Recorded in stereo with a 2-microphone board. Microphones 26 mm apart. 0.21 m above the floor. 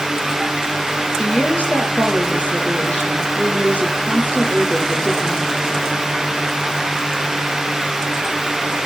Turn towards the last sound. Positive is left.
turn(degrees=65)  # may be behind; listen again after turning